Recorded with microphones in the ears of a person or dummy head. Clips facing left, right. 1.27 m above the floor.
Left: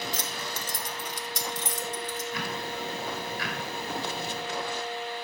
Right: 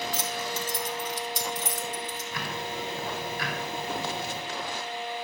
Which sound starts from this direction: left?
Keys jangling, at 0.1 s.